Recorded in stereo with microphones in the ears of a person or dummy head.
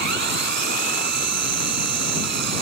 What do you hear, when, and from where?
0.0 s an engine running: 65° right (ahead or behind)